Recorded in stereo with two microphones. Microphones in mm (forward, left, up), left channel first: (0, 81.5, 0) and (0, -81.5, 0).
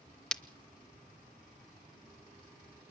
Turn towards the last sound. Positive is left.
turn(degrees=5)  # may be behind; listen again after turning